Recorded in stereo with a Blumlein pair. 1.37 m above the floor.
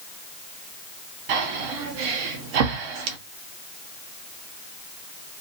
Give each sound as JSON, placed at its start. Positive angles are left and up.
{"t": 1.3, "sound": "breathing", "azimuth_deg": -45, "distance_m": 0.6}